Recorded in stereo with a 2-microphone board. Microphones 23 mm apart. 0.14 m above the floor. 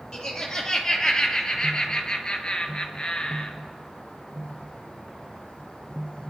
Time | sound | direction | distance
0.1 | laughter | 25° left (ahead or behind) | 3.5 m